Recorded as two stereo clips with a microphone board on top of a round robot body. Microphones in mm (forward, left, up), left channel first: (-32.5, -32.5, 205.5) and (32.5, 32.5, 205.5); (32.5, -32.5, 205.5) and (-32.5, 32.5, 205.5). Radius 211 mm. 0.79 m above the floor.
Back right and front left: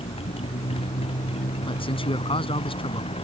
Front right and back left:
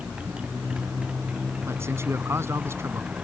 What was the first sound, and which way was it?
A motorcycle, 145° right.